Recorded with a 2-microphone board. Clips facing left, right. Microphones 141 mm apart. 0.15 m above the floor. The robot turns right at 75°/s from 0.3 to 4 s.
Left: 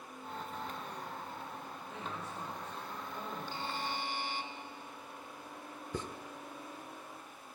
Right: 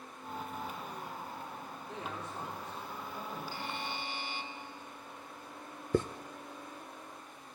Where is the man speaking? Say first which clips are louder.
Right 2 dB; 100° right, 7 m; by 3.4 s 15° left, 7 m.